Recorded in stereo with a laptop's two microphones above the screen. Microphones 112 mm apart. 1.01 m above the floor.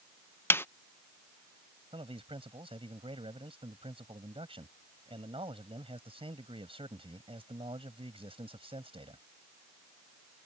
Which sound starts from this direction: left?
A snare drum, at 0.5 s.